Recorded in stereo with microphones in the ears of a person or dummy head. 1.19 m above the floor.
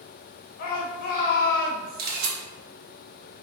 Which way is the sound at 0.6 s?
50° left (ahead or behind).